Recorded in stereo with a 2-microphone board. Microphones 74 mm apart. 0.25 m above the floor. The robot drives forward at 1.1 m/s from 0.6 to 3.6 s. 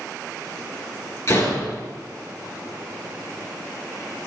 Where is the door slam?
45° left (ahead or behind), 3.5 m; by 1.8 s 55° left (ahead or behind), 3 m.